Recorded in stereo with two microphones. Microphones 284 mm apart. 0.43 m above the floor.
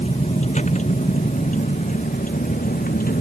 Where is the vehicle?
25° left (ahead or behind); by 3.2 s 30° left (ahead or behind).